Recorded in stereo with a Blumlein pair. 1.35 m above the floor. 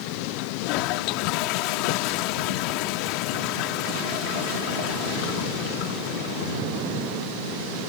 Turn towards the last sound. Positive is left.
turn(degrees=40)